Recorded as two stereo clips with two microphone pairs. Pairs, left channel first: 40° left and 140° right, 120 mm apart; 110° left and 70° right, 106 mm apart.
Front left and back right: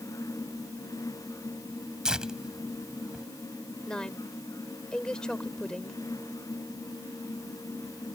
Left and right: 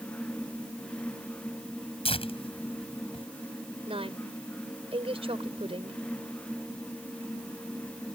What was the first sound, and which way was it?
Tearing paper, 135° left.